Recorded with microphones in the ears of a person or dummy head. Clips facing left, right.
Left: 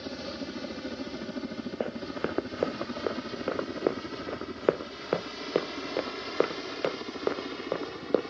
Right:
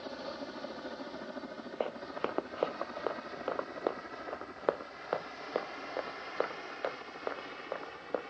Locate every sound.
0.0 s a helicopter: 40° left (ahead or behind); by 8.3 s 65° left (ahead or behind)
1.8 s running footsteps: 25° left (ahead or behind); by 8.2 s 65° left (ahead or behind)